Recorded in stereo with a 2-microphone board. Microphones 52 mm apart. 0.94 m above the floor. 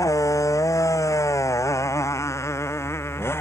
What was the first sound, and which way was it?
A motorcycle, 85° left.